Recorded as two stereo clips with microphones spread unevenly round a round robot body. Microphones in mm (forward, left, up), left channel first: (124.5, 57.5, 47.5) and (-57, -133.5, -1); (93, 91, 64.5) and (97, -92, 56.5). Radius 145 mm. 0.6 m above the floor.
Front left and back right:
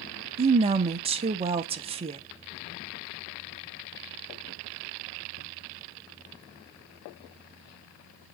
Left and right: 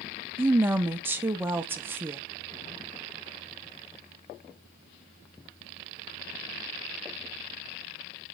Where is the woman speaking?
155° right, 0.8 m.